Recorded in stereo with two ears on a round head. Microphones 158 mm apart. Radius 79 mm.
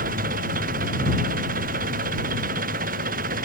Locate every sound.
0.0 s an engine running: 55° right (ahead or behind)